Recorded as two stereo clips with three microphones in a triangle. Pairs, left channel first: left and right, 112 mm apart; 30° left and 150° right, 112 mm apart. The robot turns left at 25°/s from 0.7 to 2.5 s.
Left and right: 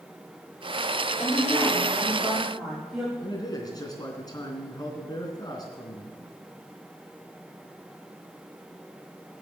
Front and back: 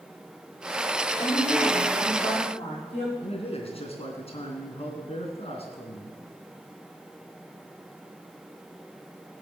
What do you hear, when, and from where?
1.2 s a woman speaking: 25° left, 7 m; by 3.1 s 5° right, 7 m
3.2 s a man speaking: 40° left, 3 m